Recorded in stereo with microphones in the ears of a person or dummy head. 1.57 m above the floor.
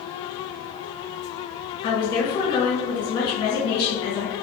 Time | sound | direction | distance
1.8 | a woman speaking | 30° left (ahead or behind) | 1.3 m